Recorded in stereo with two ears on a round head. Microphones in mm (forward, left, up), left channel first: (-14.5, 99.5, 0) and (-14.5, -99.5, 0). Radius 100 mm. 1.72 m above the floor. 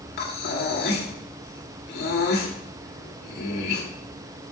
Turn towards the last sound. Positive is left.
turn(degrees=45)  # may be behind; listen again after turning